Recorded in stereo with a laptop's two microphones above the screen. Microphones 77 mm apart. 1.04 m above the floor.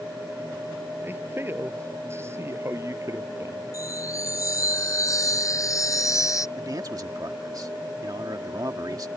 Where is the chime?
40° left (ahead or behind).